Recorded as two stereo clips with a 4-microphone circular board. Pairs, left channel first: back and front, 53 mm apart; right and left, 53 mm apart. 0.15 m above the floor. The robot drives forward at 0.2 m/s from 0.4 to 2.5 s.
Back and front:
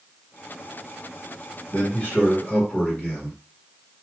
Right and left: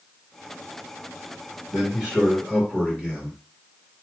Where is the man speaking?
140° left, 1.9 m; by 3.4 s 145° left, 1.9 m.